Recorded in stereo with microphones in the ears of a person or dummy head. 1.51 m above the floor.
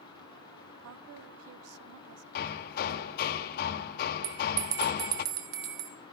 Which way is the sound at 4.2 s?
55° right (ahead or behind).